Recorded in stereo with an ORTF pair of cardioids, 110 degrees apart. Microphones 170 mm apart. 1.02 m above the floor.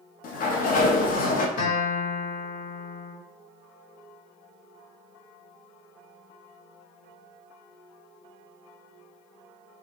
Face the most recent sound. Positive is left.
turn(degrees=60)